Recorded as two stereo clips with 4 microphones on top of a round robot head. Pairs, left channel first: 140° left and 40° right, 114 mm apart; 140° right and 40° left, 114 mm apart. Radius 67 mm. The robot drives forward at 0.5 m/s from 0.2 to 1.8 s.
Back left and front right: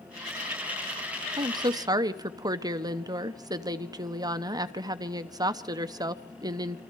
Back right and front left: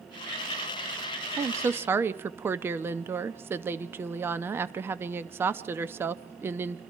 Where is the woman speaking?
10° right, 1.0 m; by 6.8 s 15° right, 0.8 m.